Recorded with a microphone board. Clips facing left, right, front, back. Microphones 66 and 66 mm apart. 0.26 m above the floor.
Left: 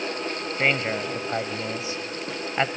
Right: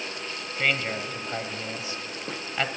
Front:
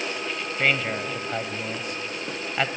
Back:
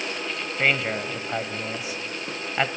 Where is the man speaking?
110° left, 1.0 m.